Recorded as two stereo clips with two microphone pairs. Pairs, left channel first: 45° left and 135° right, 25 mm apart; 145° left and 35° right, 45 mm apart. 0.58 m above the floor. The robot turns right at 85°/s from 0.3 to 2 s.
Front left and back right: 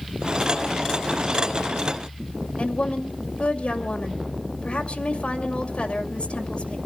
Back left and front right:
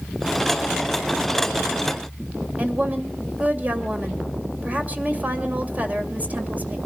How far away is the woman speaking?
About 2 m.